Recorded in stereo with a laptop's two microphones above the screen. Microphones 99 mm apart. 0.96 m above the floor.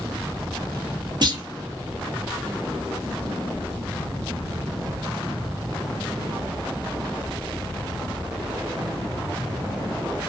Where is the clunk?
50° right (ahead or behind), 0.7 m.